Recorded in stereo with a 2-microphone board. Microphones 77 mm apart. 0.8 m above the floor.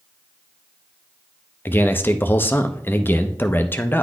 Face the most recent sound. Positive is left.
turn(degrees=30)  # may be behind; listen again after turning